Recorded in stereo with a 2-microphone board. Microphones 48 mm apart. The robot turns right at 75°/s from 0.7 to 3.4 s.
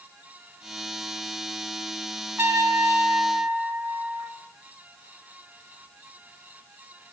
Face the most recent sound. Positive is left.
turn(degrees=-45)